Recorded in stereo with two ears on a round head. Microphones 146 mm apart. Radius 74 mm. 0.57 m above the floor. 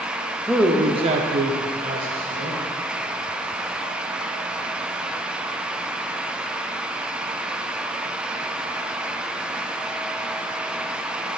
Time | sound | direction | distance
0.5 | a man speaking | centre (ahead or behind) | 0.8 m